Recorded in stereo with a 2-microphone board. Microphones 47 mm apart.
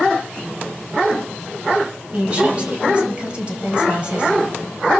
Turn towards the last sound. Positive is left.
turn(degrees=-25)  # may be behind; listen again after turning